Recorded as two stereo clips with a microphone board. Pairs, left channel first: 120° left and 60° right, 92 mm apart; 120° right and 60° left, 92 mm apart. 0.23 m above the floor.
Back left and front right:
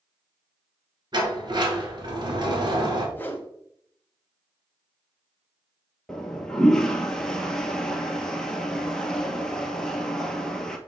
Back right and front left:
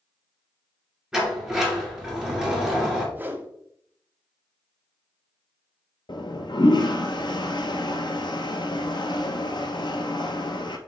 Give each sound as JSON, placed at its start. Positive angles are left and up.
{"t": 1.1, "sound": "a sliding door", "azimuth_deg": -20, "distance_m": 2.0}
{"t": 3.1, "sound": "a whoosh", "azimuth_deg": 95, "distance_m": 0.9}
{"t": 6.1, "sound": "a toilet flushing", "azimuth_deg": -155, "distance_m": 0.8}